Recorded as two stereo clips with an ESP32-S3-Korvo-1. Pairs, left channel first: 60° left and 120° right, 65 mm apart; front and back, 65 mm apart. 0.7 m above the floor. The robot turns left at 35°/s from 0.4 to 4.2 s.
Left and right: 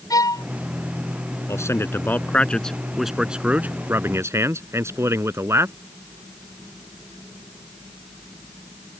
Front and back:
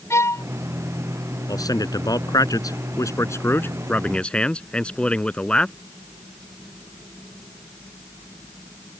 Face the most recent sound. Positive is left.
turn(degrees=-75)